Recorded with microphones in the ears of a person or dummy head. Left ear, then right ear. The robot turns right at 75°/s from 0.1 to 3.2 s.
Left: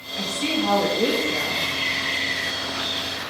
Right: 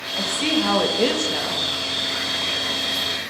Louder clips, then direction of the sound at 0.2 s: Right 3 dB; 160° right.